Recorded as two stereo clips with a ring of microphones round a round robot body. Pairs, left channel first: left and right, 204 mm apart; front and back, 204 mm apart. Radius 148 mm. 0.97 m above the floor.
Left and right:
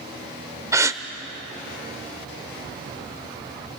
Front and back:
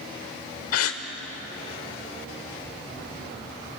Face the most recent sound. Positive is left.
turn(degrees=-15)